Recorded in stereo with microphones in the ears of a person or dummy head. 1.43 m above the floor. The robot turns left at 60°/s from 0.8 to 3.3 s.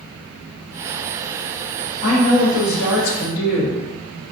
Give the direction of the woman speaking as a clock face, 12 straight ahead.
8 o'clock.